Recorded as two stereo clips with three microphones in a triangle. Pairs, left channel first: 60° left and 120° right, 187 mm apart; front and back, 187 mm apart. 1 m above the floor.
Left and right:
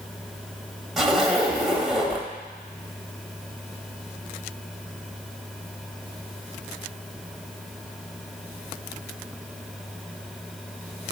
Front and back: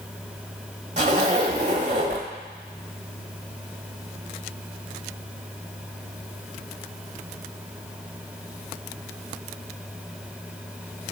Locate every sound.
1.0 s a zipper: 150° left, 1.0 m